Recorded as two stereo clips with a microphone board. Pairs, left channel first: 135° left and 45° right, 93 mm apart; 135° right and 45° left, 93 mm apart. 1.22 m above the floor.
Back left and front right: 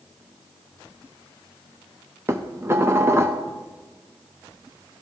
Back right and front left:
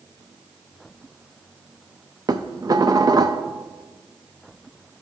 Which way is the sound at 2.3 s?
10° left.